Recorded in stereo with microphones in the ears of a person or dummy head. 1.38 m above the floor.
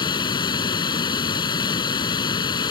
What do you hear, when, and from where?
0.0 s running water: 25° left (ahead or behind)